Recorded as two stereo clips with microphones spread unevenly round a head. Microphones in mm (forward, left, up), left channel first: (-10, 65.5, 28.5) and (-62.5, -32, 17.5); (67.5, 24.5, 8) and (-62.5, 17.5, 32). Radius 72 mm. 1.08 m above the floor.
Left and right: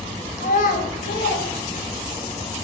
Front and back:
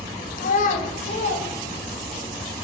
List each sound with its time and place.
0.4 s a child speaking: 25° left, 1.0 m; by 2.3 s 45° left, 2.5 m